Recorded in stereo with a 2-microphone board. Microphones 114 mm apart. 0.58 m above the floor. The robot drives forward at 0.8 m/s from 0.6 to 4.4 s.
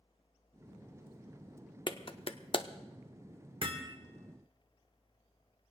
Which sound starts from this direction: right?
Hammering, at 3.6 s.